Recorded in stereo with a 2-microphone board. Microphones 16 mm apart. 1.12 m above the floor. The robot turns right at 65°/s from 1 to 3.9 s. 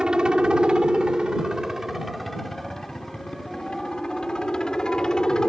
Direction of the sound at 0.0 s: 70° right (ahead or behind).